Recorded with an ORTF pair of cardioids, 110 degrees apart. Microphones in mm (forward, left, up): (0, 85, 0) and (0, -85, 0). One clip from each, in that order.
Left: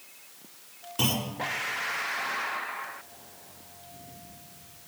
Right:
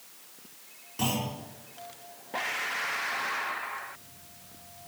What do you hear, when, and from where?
1.0 s a clunk: 35° left, 5 m